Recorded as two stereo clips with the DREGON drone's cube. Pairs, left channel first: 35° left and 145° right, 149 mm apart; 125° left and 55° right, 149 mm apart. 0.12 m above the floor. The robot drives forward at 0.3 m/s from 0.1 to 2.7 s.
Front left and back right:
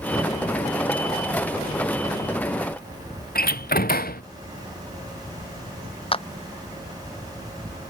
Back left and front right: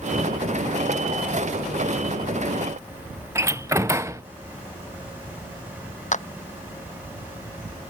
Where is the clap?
85° left.